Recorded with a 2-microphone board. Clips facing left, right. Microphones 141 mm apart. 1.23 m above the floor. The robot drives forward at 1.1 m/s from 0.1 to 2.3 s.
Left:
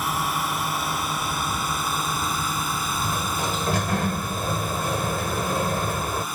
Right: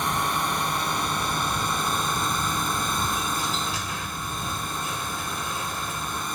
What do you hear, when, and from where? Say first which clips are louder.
0.0 s a drone: even; 5° left (ahead or behind)
3.0 s a sliding door: left 2 dB; 60° left (ahead or behind)